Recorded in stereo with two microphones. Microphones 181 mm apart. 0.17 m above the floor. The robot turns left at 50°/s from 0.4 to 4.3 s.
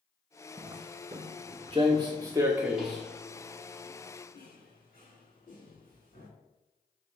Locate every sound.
0.6 s footsteps: 35° right (ahead or behind), 0.6 m; by 6.3 s 50° left (ahead or behind), 2.5 m